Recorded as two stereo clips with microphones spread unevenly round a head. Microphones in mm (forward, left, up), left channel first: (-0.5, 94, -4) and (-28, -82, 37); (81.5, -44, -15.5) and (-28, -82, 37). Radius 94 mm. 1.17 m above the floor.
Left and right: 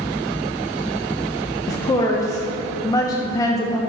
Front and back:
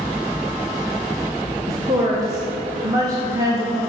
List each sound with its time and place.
1.7 s a woman speaking: 115° left, 0.6 m